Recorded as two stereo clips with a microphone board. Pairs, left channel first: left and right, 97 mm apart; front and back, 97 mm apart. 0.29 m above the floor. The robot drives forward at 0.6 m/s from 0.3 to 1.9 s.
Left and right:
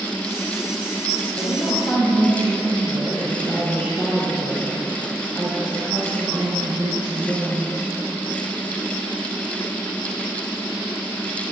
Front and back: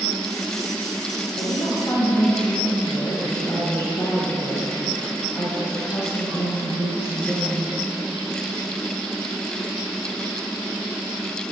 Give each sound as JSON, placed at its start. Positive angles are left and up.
{"t": 1.4, "sound": "a woman speaking", "azimuth_deg": 30, "distance_m": 1.7}